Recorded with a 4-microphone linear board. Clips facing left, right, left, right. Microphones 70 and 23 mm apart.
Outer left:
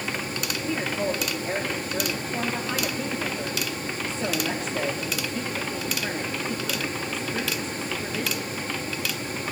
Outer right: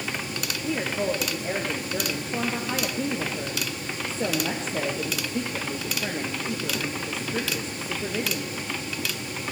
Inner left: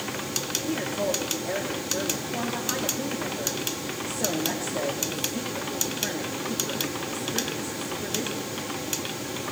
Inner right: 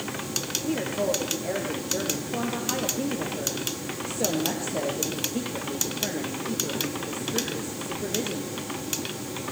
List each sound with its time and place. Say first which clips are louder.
0.6 s a woman speaking: outer right 1 dB, inner right 3 dB; 30° right (ahead or behind), 3 m